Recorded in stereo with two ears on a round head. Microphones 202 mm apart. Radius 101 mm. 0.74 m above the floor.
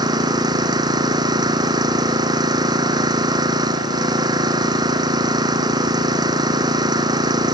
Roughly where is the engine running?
Centre.